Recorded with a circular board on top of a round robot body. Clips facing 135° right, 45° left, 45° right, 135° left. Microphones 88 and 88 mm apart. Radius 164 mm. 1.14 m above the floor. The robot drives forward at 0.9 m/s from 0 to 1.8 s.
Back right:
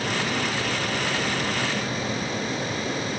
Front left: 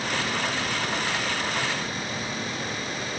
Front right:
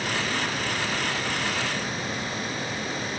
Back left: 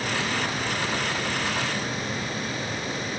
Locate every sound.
Only background noise.